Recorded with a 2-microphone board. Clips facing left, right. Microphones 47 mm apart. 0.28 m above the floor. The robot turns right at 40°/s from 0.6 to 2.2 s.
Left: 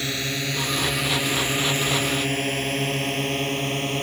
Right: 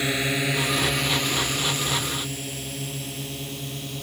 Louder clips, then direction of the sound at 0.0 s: Right 3 dB; 15° right (ahead or behind).